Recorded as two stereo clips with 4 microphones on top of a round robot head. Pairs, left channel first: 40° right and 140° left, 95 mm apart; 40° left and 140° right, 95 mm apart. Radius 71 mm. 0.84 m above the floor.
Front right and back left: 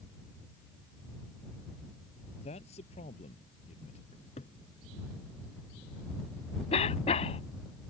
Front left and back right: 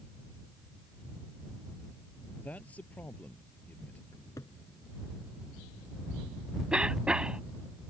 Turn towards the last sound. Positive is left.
turn(degrees=-60)